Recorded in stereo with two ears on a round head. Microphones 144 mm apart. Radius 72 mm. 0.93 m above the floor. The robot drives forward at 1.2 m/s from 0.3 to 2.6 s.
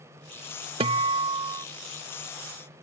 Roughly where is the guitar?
Right.